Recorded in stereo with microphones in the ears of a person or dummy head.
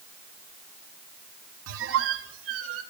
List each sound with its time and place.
1.7 s a squeak: 70° right (ahead or behind), 0.9 m